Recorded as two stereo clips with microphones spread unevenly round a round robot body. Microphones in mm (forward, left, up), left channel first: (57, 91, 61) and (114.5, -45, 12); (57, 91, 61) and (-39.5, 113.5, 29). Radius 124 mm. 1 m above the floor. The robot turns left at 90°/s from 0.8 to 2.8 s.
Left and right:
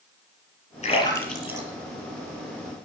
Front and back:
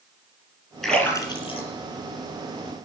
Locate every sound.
0.8 s a splash: 70° left, 6 m; by 1.7 s 5° right, 6 m